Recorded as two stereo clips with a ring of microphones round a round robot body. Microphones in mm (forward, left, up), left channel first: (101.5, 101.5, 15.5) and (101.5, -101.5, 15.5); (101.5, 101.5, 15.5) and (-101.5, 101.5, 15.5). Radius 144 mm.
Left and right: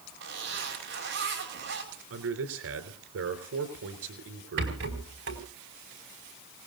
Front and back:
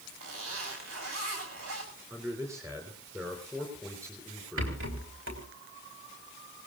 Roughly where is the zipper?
Behind right.